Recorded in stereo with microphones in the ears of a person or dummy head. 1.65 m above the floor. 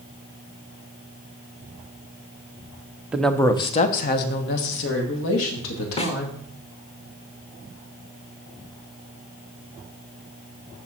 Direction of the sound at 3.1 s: 10° right (ahead or behind).